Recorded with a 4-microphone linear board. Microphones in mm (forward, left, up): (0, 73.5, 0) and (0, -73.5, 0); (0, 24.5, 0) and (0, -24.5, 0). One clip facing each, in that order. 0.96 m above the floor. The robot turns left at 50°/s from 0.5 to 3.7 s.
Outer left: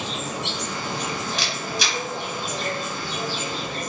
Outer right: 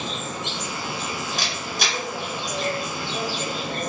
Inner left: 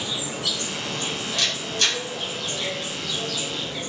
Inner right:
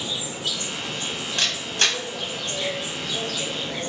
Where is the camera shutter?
45° right (ahead or behind), 1.1 m.